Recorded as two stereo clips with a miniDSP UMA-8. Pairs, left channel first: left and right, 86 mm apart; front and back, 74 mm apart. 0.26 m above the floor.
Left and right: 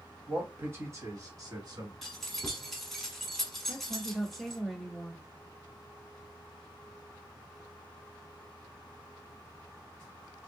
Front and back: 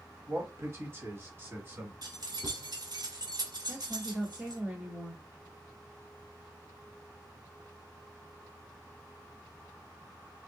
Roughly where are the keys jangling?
Behind.